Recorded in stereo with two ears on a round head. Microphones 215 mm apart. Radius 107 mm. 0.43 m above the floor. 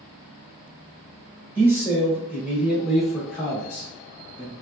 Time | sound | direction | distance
1.6 | a man speaking | 10° right (ahead or behind) | 1.3 m